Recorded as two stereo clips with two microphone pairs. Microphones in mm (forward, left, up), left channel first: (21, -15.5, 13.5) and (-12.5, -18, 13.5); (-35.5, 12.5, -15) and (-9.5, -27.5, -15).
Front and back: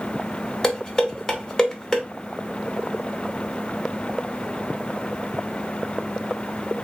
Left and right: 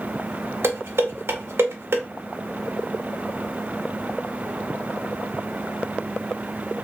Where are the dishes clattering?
60° right, 0.6 m.